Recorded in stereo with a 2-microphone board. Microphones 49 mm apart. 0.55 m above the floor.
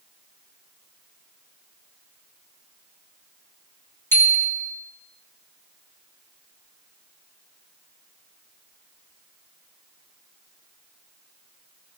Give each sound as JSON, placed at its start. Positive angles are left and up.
{"t": 4.1, "sound": "a bicycle bell", "side_deg": 55, "distance_m": 3.5}